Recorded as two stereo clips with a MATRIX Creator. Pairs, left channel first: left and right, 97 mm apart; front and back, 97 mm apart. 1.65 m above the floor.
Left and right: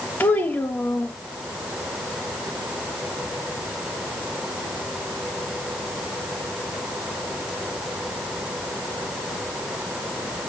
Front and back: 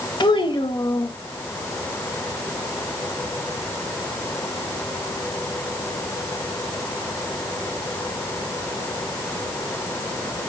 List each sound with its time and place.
0.2 s a child speaking: 20° left, 1.5 m